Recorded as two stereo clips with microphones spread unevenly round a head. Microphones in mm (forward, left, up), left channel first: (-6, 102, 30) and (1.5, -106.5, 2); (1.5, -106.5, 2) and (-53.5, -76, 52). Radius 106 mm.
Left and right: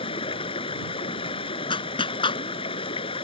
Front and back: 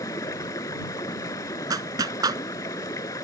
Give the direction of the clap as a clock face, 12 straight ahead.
7 o'clock.